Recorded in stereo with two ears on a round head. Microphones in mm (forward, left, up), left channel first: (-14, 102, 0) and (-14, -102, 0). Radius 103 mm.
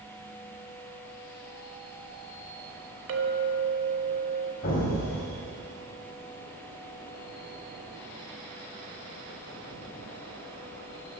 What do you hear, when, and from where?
3.1 s a clink: 60° right (ahead or behind), 1.0 m
4.6 s an explosion: 60° left (ahead or behind), 3 m